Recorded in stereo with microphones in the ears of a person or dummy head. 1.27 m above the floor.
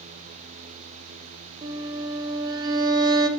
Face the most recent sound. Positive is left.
turn(degrees=-25)  # may be behind; listen again after turning